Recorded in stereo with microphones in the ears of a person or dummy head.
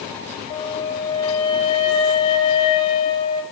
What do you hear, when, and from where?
0.5 s a flute: 25° left (ahead or behind), 0.8 m